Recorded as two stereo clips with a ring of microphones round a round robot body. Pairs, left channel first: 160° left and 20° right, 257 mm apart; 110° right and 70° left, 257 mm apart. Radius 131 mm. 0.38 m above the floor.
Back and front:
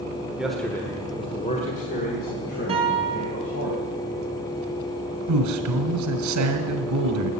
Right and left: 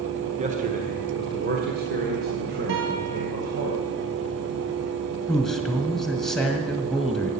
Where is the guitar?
45° left, 3.5 m.